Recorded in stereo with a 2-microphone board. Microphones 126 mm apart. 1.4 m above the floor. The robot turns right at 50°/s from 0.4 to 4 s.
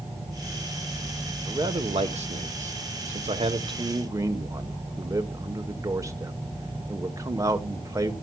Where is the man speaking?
155° right, 1.0 m; by 8.1 s 25° right, 1.0 m.